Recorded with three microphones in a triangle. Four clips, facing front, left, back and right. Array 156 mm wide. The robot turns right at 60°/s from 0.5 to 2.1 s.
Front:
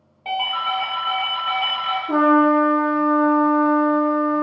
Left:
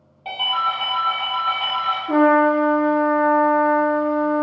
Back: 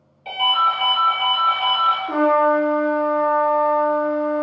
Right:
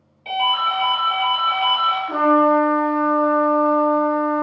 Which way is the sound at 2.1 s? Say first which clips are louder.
Left 1 dB, front 3 dB; 130° left.